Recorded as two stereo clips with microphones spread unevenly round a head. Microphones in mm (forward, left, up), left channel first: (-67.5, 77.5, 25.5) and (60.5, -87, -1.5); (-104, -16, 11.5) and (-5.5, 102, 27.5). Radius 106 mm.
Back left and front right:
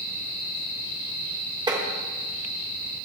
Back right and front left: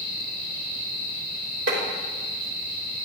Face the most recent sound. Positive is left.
turn(degrees=20)